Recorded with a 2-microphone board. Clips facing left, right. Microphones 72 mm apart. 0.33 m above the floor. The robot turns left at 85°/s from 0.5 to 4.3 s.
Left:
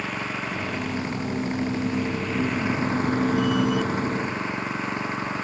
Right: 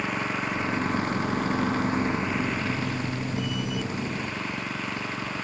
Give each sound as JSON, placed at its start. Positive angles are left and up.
{"t": 0.0, "sound": "an engine running", "azimuth_deg": -10}